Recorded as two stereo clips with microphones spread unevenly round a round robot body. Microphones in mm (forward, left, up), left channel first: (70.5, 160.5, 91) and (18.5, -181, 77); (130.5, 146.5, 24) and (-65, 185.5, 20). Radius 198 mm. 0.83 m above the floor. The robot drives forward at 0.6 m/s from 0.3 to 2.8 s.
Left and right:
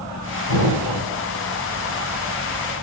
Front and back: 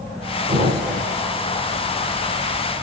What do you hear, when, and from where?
0.5 s an explosion: 110° left, 9 m; by 1.1 s 115° left, 9 m